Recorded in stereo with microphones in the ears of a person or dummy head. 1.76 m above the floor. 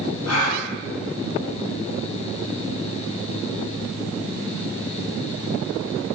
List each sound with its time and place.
0.3 s a gasp: 80° left, 0.5 m